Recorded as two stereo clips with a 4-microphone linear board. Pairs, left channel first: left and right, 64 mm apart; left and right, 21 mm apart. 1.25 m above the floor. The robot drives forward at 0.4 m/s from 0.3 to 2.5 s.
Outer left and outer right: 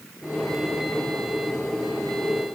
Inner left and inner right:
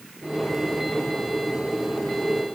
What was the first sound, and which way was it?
Only background noise.